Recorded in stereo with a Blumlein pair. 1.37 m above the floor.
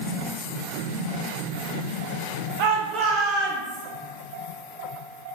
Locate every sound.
2.6 s a shout: 45° right, 0.7 m; by 3.8 s 10° right, 1.3 m